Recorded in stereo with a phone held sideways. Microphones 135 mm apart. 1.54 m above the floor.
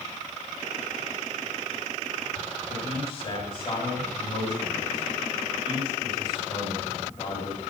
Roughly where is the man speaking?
Left.